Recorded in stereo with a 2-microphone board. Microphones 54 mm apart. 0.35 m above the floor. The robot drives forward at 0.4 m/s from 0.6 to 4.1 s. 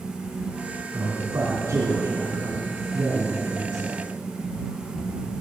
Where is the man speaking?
70° right (ahead or behind), 3.5 m; by 4.0 s 60° right (ahead or behind), 3.5 m.